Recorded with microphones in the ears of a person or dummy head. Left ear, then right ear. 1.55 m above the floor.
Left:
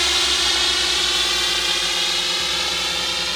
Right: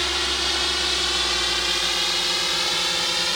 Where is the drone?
10° left (ahead or behind); by 3.4 s 10° right (ahead or behind).